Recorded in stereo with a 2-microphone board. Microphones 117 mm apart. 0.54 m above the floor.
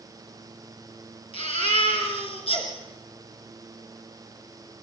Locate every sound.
1.3 s a baby crying: 55° left (ahead or behind), 4 m